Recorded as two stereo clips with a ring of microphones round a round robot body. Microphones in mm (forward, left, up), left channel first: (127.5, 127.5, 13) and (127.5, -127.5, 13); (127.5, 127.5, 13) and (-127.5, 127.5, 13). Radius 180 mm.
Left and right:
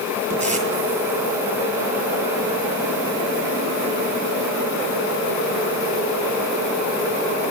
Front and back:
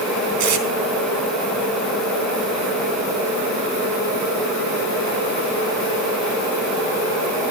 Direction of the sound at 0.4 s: 175° left.